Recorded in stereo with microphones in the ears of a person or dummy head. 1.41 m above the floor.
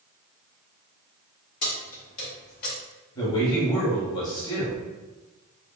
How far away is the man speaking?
About 0.8 m.